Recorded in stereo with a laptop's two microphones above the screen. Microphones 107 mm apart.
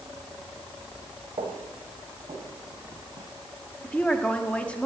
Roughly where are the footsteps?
Right.